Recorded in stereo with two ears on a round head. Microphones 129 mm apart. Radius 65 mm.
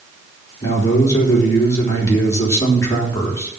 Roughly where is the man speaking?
Left.